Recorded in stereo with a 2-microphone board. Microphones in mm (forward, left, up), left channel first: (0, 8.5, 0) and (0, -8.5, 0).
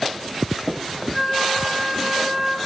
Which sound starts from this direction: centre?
A flute, at 1.1 s.